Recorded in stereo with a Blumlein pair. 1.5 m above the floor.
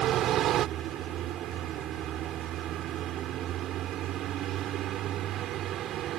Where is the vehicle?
35° right.